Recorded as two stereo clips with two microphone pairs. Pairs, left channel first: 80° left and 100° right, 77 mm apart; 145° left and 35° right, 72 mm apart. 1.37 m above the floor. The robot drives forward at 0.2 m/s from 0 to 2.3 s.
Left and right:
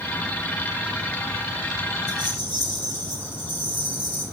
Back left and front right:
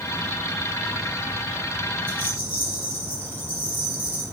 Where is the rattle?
100° right, 3.5 m.